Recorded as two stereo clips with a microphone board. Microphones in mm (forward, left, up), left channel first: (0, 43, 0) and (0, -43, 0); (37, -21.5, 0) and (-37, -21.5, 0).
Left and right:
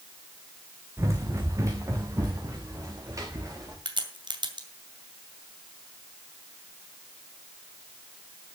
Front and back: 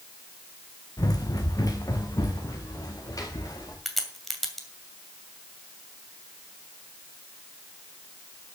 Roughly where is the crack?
Right.